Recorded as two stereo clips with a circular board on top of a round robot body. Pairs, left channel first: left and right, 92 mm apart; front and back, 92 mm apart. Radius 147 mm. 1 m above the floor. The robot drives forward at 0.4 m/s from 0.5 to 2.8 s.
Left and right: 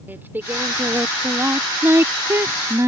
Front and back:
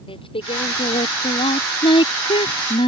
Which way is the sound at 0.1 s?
20° right.